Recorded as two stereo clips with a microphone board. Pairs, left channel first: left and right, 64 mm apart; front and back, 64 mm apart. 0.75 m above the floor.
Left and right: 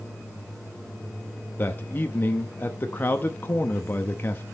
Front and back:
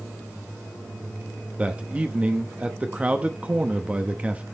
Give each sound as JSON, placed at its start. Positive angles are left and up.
{"t": 1.6, "sound": "a man speaking", "azimuth_deg": 125, "distance_m": 0.8}